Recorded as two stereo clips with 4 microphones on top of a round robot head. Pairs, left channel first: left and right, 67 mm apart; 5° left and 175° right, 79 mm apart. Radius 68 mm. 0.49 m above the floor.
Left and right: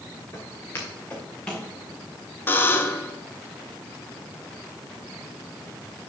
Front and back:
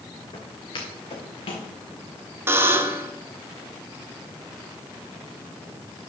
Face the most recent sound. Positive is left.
turn(degrees=135)